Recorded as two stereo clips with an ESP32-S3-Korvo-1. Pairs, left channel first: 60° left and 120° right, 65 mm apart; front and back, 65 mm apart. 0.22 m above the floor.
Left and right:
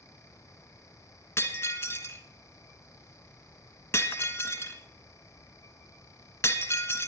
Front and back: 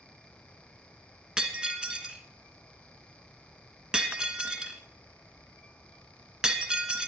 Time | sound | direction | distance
1.4 | breaking glass | 105° left | 1.5 m